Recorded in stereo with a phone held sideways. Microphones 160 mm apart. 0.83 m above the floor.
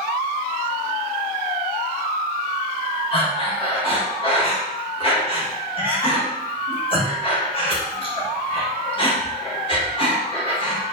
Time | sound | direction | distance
3.1 | breathing | 35° left (ahead or behind) | 1.3 m